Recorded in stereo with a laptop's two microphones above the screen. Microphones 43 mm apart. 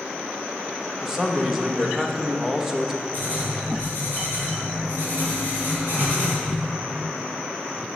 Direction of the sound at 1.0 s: 10° right (ahead or behind).